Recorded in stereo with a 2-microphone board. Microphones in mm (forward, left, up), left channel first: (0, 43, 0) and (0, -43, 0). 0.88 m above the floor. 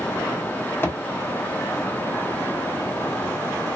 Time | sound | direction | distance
0.8 | a thud | 25° left (ahead or behind) | 0.9 m